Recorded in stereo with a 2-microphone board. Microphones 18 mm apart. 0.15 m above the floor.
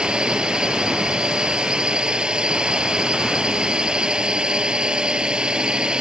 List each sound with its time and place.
0.0 s a drone: 45° right (ahead or behind)